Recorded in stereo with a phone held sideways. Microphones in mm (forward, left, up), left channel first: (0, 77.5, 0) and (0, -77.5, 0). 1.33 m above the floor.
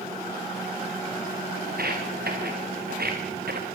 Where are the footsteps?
75° right (ahead or behind), 7.5 m.